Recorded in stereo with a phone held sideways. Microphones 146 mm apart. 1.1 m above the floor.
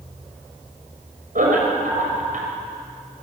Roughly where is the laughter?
Right.